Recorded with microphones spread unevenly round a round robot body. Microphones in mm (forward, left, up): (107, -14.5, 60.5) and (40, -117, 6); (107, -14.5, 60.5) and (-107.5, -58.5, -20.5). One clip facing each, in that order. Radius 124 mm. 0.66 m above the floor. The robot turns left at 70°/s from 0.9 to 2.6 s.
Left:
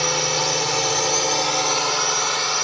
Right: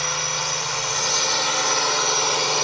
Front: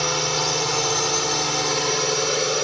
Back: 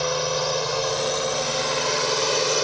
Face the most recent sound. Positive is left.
turn(degrees=-80)